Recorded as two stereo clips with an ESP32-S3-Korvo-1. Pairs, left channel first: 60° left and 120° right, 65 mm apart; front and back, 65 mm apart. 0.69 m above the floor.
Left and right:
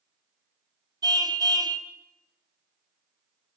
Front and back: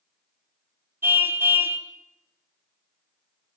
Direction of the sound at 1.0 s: 125° right.